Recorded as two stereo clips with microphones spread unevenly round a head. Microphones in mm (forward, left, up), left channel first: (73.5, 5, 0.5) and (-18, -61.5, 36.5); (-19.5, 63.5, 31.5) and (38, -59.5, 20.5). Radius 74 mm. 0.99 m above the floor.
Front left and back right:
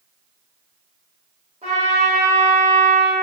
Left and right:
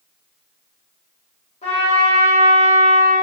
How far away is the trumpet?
About 0.7 m.